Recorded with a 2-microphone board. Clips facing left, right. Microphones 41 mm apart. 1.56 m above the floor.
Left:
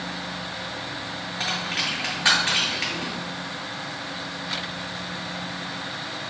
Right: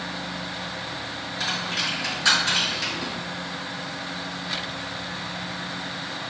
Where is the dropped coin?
35° left (ahead or behind), 1.8 m.